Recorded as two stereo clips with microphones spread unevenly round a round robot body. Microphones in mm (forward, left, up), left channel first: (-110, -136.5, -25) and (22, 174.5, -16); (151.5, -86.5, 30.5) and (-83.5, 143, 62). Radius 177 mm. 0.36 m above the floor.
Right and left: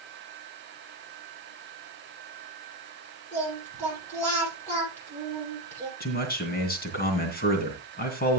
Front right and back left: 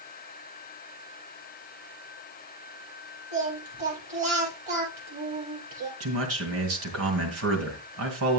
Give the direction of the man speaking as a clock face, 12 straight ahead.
6 o'clock.